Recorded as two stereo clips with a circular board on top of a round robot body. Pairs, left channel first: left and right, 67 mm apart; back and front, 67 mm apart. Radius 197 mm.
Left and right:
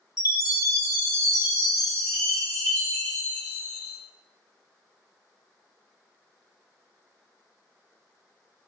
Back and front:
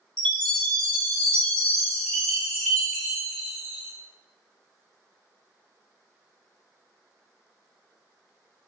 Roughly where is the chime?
Left.